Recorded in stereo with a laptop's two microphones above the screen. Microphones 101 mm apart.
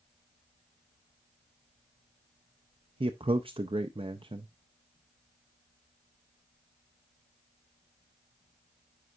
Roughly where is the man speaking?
Right.